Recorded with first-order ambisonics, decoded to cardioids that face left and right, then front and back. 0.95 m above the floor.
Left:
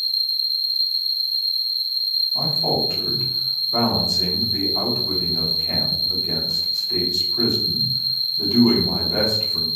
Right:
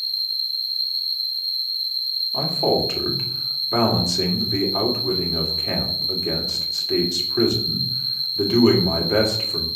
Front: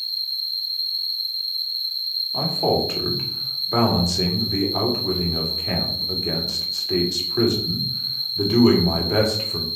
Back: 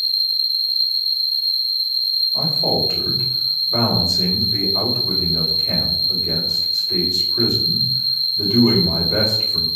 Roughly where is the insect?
Behind left.